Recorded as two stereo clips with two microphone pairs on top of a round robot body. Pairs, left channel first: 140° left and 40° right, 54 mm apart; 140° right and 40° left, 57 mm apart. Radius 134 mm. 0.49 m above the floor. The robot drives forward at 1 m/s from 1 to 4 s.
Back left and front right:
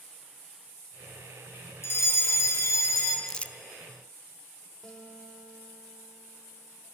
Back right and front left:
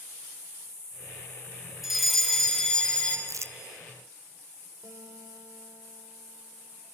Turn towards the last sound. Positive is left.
turn(degrees=60)